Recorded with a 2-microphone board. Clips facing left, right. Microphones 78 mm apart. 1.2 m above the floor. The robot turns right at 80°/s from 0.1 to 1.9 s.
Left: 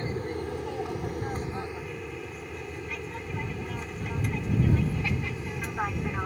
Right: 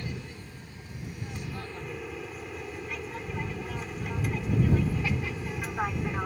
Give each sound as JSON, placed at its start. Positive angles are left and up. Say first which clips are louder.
{"t": 0.0, "sound": "an aircraft", "louder": "left 8 dB", "azimuth_deg": 35}